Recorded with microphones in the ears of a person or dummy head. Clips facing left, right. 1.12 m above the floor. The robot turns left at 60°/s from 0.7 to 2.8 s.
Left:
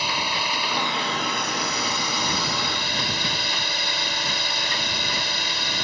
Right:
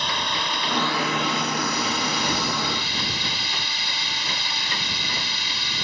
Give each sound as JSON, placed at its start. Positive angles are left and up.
{"t": 0.0, "sound": "a drone", "azimuth_deg": 175}